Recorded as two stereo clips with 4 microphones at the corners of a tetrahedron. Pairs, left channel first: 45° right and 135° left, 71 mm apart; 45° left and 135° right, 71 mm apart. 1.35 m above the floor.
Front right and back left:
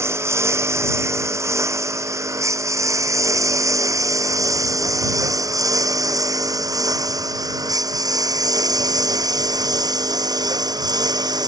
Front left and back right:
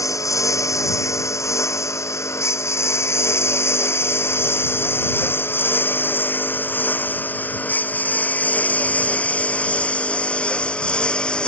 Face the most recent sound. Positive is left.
turn(degrees=120)